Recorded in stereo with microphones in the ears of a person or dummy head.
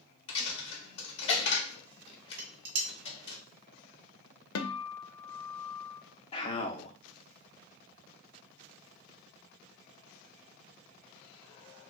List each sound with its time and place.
0.3 s a dropped coin: 40° left (ahead or behind), 1.0 m
2.4 s dishes clattering: 70° right (ahead or behind), 1.0 m
4.5 s a guitar: 85° left, 0.5 m
6.3 s a man speaking: 25° left (ahead or behind), 0.7 m